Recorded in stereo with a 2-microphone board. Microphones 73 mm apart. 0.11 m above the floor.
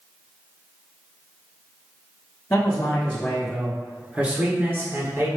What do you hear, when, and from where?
2.5 s a man speaking: 35° left (ahead or behind), 1.3 m; by 5.3 s 45° right (ahead or behind), 1.5 m